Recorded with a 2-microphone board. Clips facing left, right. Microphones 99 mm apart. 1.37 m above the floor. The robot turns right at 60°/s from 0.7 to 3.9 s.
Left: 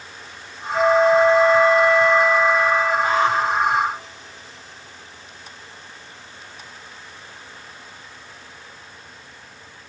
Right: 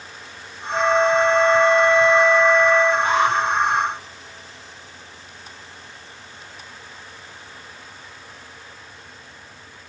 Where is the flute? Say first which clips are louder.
Left 2 dB; 95° right, 2.5 m; by 2.9 s 35° left, 2.5 m.